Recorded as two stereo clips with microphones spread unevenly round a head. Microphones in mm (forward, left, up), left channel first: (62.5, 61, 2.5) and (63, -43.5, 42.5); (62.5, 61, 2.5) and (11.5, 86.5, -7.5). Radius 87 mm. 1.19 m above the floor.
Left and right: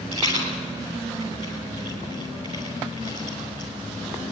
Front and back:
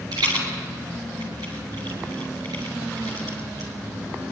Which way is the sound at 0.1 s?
150° right.